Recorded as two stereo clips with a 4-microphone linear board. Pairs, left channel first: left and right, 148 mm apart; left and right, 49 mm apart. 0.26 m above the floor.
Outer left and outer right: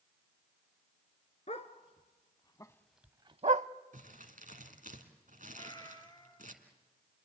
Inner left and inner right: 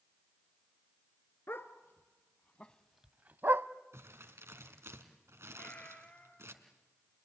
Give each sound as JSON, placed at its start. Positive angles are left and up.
{"t": 1.5, "sound": "a dog barking", "side_deg": 50, "distance_m": 1.4}
{"t": 3.9, "sound": "crumpling", "side_deg": -65, "distance_m": 2.0}
{"t": 5.5, "sound": "a cat meowing", "side_deg": 30, "distance_m": 2.0}